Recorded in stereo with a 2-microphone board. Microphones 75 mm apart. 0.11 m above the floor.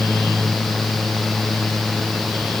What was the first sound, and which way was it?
Only background noise.